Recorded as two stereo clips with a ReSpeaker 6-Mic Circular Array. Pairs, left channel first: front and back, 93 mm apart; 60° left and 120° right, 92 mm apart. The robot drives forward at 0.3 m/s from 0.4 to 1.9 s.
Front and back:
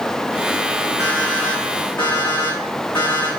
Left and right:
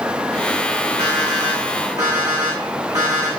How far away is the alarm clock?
About 6 m.